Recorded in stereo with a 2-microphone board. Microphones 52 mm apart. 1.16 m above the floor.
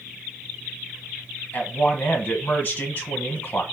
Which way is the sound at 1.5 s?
30° left (ahead or behind).